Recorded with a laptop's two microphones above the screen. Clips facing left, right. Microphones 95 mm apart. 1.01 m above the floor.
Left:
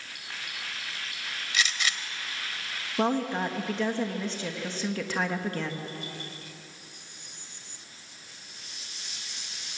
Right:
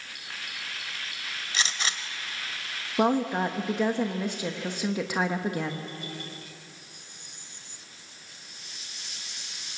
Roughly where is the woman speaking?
Centre.